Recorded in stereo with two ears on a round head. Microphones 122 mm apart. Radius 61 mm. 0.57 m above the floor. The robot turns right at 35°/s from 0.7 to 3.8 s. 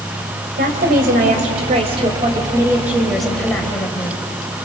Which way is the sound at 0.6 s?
90° right.